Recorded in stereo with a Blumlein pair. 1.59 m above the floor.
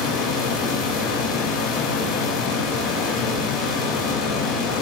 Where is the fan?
30° left, 1.7 m.